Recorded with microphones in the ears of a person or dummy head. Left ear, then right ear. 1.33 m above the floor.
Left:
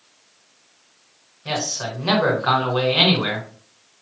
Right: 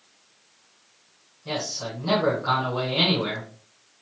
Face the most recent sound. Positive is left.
turn(degrees=60)  # may be behind; listen again after turning